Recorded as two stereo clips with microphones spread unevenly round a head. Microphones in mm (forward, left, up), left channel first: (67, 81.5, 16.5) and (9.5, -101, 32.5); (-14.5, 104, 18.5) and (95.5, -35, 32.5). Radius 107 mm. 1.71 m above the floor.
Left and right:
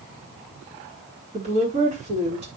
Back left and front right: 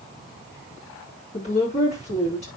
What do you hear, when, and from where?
1.3 s a woman speaking: 170° right, 5 m